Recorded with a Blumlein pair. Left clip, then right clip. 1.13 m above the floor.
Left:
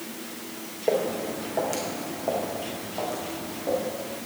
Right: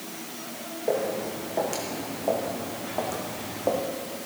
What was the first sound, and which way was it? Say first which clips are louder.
Footsteps: left 2 dB; 10° left.